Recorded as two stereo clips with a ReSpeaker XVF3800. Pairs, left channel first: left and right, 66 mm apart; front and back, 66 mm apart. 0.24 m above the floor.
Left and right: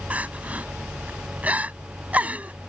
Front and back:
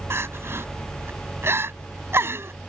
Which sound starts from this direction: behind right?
Crying, at 0.1 s.